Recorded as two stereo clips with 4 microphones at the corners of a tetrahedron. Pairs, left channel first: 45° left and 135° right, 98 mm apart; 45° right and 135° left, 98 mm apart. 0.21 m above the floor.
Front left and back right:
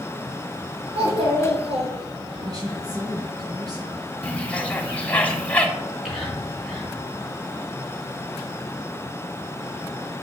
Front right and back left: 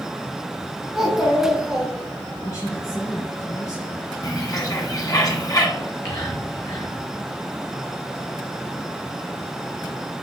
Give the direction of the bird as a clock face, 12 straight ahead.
1 o'clock.